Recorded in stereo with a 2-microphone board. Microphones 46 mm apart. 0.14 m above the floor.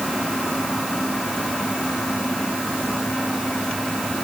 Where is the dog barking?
I don't hear a dog barking.